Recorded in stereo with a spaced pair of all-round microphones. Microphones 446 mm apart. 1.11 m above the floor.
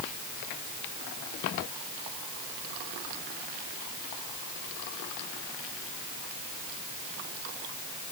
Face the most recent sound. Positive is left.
No sound to turn to.